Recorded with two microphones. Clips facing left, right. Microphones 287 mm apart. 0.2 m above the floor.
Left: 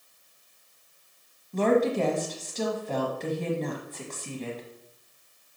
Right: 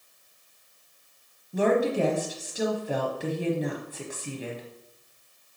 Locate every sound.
1.5 s a woman speaking: 10° right (ahead or behind), 1.0 m